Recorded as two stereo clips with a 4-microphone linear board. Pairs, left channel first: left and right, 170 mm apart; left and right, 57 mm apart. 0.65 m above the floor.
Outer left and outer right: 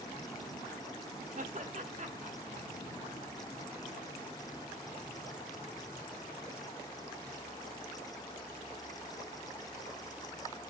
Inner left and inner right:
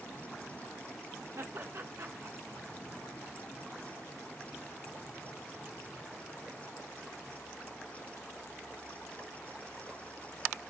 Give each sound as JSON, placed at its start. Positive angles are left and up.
{"t": 1.4, "sound": "laughter", "side_deg": -45, "distance_m": 1.2}